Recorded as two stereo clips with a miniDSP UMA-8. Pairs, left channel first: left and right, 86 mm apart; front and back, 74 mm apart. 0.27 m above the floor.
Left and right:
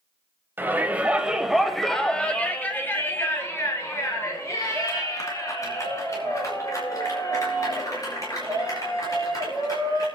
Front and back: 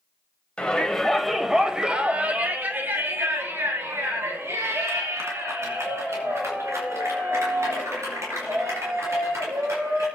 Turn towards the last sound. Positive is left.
turn(degrees=135)